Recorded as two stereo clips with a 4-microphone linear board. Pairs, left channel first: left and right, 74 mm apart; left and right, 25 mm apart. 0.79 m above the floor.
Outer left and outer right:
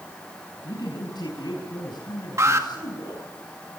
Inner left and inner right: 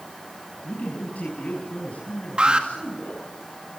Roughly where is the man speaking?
Left.